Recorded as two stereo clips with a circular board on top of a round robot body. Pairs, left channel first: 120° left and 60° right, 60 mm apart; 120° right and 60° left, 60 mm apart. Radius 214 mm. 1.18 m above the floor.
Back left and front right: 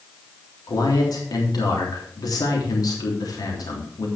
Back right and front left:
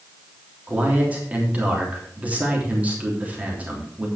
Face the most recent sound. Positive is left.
turn(degrees=125)